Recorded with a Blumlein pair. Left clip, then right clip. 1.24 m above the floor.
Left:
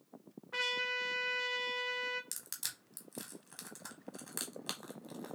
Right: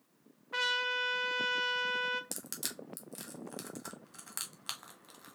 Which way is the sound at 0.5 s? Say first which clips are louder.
Right 3 dB; 10° right.